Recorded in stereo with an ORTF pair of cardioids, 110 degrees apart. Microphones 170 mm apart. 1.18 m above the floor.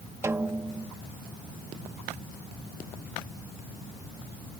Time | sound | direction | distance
0.2 | a snare drum | 15° right | ?